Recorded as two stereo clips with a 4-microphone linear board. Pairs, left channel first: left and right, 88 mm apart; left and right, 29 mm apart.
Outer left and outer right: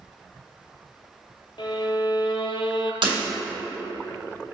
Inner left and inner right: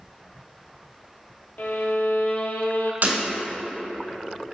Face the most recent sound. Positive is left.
turn(degrees=-70)  # may be behind; listen again after turning